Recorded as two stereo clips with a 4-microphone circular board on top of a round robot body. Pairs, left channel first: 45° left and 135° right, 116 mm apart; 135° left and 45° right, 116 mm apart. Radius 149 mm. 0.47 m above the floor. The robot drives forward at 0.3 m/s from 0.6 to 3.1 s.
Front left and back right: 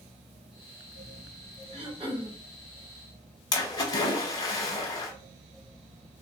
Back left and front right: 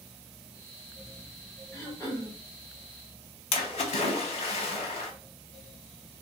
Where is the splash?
105° left, 0.7 m.